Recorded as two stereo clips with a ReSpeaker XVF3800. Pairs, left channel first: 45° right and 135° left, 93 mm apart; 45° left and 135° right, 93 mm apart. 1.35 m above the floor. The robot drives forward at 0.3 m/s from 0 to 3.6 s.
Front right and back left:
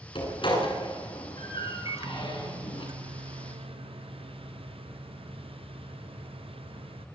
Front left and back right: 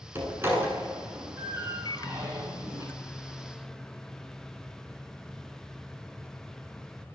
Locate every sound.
0.1 s a door slam: 70° right, 9.5 m; by 2.9 s 75° right, 9.5 m
1.9 s a microwave: 85° left, 0.6 m; by 7.1 s 130° left, 0.7 m